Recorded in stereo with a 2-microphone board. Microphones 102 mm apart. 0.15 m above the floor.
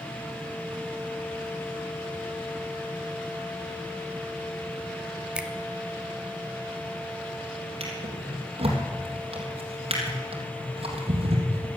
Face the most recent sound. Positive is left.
turn(degrees=-70)  # may be behind; listen again after turning